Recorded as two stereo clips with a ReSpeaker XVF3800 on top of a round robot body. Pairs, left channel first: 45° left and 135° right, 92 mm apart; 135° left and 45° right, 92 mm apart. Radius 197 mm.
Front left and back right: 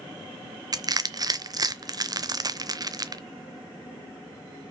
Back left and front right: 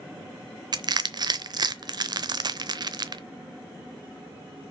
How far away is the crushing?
About 0.8 m.